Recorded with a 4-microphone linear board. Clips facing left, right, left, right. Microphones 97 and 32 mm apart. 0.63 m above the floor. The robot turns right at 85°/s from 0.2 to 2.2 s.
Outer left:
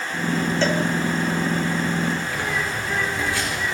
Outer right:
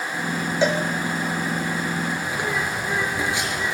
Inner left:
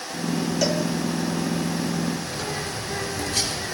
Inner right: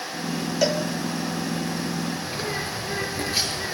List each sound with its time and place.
0.6 s a cowbell: 10° right (ahead or behind), 0.8 m; by 0.8 s 30° right (ahead or behind), 0.8 m
2.2 s a bird: 20° right (ahead or behind), 2.5 m